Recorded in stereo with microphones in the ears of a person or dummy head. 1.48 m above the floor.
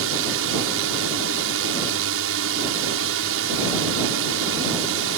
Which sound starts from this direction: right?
A drone, at 0.0 s.